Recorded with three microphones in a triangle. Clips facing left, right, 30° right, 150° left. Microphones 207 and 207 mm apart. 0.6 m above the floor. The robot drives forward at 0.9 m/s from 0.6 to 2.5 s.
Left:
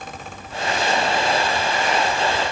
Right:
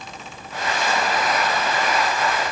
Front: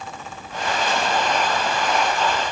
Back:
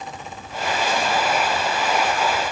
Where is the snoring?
I don't hear snoring.